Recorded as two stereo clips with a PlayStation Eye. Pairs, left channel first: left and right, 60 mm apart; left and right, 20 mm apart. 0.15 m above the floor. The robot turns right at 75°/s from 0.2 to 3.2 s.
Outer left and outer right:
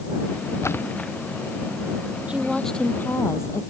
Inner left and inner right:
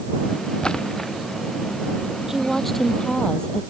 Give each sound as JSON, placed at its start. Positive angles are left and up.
{"t": 0.6, "sound": "a splash", "side_deg": 50}
{"t": 2.3, "sound": "a woman speaking", "azimuth_deg": -20}